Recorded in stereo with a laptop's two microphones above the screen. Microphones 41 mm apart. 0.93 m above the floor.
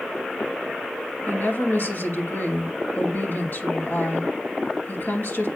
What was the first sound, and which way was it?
A woman speaking, 55° left (ahead or behind).